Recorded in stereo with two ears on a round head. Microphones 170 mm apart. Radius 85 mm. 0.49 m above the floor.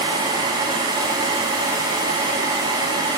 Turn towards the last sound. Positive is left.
No sound to turn to.